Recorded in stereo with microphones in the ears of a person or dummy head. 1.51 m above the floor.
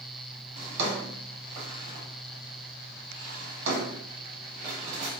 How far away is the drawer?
About 1.3 m.